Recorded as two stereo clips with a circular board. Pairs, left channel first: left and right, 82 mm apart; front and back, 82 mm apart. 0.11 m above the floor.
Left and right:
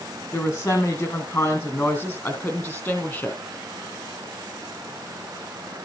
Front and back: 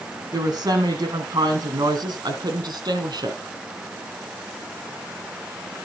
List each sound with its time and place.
0.3 s a woman speaking: 140° left, 4.5 m; by 3.4 s 150° left, 2.5 m